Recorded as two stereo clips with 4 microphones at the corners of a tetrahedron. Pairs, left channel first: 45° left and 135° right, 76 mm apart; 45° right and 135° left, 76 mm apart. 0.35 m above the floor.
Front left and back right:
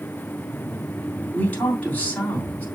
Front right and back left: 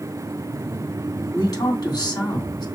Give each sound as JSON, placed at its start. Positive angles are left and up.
{"t": 1.3, "sound": "a man speaking", "azimuth_deg": -20, "distance_m": 3.0}